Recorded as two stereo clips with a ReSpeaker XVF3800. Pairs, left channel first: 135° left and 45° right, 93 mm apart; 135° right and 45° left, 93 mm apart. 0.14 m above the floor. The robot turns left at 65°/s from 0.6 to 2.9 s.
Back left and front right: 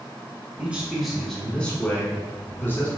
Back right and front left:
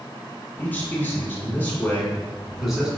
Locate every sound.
0.6 s a man speaking: 100° right, 1.2 m; by 2.9 s 115° left, 1.2 m